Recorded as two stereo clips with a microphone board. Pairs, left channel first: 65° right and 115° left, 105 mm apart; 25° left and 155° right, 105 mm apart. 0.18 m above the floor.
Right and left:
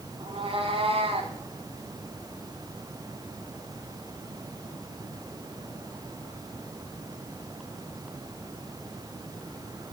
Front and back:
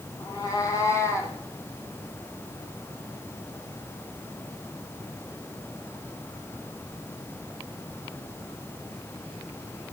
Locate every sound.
0.2 s a cat meowing: 75° left, 6.5 m; by 1.4 s 85° left, 5 m